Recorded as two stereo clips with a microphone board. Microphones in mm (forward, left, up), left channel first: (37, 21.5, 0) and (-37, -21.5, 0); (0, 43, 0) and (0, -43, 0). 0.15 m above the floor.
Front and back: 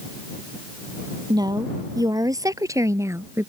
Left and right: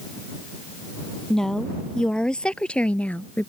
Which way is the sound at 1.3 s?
175° left.